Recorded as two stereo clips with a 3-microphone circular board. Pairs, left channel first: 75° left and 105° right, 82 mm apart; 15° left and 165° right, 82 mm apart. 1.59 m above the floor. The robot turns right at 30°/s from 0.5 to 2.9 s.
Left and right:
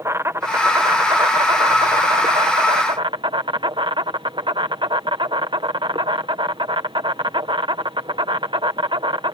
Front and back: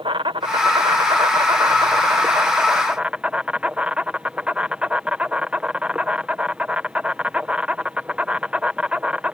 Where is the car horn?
I don't hear a car horn.